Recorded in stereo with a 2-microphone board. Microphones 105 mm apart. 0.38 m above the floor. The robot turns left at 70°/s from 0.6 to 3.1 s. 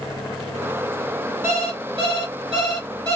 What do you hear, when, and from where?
1.4 s an alarm clock: 25° right, 1.5 m; by 3.2 s 140° right, 1.5 m